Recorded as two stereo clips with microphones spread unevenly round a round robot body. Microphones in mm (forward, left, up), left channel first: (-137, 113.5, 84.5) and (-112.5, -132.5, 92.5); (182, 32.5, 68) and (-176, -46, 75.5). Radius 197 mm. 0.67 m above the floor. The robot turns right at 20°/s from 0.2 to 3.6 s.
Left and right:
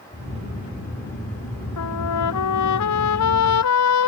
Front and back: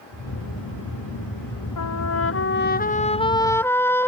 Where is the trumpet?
60° left; by 4.1 s 95° left.